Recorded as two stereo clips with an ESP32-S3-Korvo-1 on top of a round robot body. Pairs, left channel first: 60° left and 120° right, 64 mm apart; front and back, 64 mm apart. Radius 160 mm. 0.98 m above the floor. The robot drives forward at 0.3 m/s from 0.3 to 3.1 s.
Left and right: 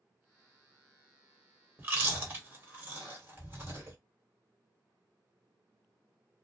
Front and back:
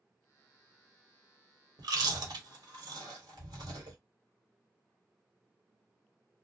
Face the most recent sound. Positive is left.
turn(degrees=180)